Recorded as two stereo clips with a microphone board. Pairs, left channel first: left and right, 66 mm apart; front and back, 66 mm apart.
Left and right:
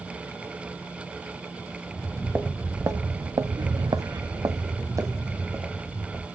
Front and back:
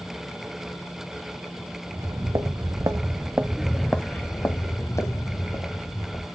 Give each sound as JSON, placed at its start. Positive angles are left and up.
{"t": 1.9, "sound": "footsteps", "azimuth_deg": -160, "distance_m": 1.2}